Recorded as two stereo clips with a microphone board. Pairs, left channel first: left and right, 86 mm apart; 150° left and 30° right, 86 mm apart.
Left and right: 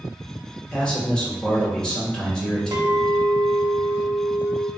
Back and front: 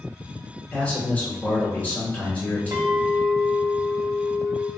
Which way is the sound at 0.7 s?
150° left.